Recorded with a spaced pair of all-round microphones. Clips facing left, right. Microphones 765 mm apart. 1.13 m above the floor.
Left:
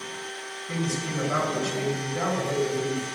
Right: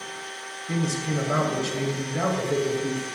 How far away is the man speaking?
About 0.7 m.